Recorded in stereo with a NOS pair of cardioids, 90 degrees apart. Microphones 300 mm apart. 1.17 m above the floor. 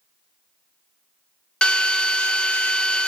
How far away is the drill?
About 0.8 m.